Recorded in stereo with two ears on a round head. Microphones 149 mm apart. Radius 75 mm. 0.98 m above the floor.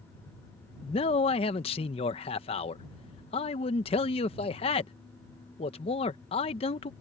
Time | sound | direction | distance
0.8 | a man speaking | 35° left (ahead or behind) | ?